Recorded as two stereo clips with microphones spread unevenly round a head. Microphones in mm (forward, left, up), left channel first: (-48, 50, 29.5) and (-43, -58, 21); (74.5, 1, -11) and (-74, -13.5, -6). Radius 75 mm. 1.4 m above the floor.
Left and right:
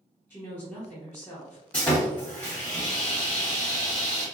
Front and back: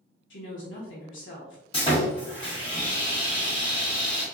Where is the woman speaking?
15° left, 1.0 m.